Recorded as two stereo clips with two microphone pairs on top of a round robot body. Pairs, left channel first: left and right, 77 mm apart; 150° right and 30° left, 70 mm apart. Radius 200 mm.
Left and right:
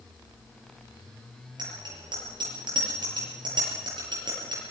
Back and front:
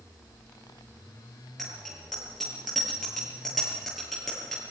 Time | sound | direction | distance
1.6 | a bicycle bell | 65° right | 8 m